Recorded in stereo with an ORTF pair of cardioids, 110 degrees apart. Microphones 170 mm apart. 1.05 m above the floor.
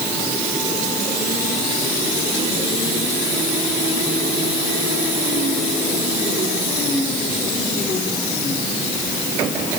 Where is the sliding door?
I don't hear a sliding door.